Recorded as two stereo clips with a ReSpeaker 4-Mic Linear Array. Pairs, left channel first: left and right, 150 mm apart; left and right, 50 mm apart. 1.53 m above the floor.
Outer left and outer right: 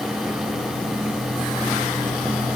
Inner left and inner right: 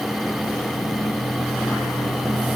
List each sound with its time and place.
Only background noise.